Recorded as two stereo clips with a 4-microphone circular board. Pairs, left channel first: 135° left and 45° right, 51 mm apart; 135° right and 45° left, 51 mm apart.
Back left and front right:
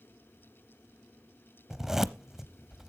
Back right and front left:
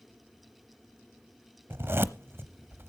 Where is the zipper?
35° left, 0.6 m.